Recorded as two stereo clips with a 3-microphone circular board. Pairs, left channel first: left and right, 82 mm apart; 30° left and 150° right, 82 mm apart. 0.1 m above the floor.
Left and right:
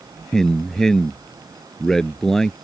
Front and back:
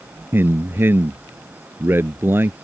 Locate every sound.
0.3 s a man speaking: 170° left